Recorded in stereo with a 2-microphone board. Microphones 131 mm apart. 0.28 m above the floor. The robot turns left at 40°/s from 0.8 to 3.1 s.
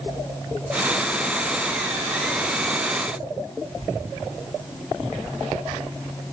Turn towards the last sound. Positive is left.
No sound to turn to.